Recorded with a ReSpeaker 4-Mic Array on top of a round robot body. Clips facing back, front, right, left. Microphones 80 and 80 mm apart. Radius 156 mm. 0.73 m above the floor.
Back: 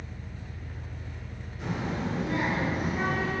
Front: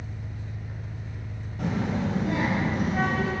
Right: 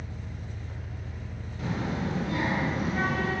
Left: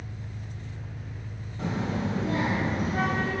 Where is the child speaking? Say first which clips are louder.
Front 4 dB, left 2 dB; 30° left, 2.5 m.